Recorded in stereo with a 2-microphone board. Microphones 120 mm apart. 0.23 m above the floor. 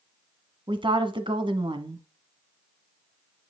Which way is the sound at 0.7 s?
50° right (ahead or behind).